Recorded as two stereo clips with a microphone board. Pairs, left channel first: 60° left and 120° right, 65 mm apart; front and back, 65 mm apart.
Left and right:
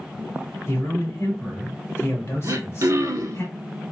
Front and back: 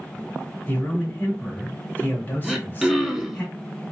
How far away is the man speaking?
About 1.1 m.